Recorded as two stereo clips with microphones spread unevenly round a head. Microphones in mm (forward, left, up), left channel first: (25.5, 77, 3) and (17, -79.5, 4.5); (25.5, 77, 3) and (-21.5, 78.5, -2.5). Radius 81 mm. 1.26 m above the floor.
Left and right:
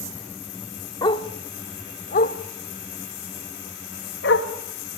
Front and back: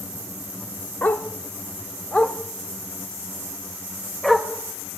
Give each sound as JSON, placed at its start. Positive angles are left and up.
{"t": 1.0, "sound": "a dog barking", "azimuth_deg": 30, "distance_m": 1.1}